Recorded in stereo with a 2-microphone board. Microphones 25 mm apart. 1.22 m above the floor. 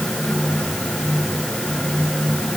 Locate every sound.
Only background noise.